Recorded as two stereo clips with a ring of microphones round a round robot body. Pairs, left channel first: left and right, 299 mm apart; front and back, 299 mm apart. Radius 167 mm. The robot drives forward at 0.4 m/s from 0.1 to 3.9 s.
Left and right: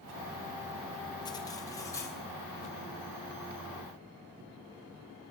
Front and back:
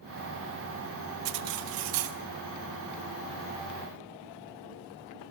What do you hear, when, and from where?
1.2 s cutlery clinking: 170° left, 0.7 m